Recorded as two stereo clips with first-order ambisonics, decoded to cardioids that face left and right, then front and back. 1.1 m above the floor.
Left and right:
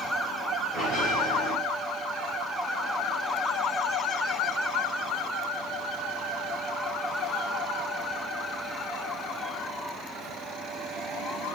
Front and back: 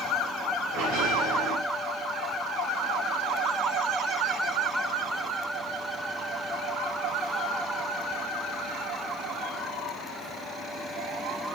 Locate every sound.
0.7 s a bell: 155° left, 4.5 m